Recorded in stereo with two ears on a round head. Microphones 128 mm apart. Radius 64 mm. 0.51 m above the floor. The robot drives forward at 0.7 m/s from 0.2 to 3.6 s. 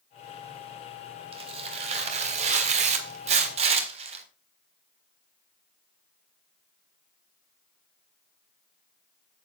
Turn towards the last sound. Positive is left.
turn(degrees=-45)  # may be behind; listen again after turning